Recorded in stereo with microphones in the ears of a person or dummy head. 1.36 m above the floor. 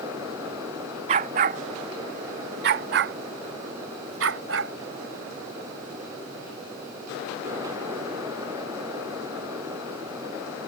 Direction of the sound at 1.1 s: 25° right (ahead or behind).